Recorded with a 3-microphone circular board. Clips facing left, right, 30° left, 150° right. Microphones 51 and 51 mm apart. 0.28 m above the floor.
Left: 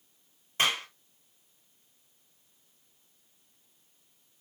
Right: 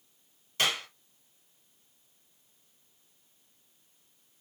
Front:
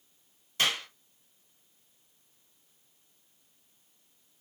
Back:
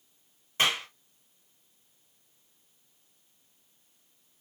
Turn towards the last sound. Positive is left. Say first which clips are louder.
# left 2 dB, back 2 dB
turn(degrees=155)